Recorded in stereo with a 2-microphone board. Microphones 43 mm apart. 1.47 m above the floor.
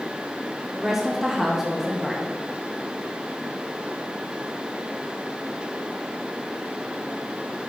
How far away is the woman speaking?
About 1.0 m.